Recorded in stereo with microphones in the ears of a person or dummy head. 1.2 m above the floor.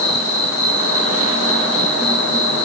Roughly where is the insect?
Left.